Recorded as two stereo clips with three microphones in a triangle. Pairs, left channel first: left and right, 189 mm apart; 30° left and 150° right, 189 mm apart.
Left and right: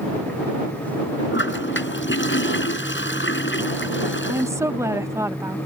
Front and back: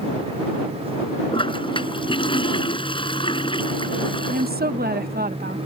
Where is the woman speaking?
165° right.